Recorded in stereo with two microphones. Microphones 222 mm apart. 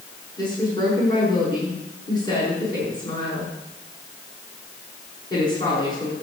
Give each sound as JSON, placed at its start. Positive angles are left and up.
{"t": 0.4, "sound": "a woman speaking", "side_deg": 20, "distance_m": 7.5}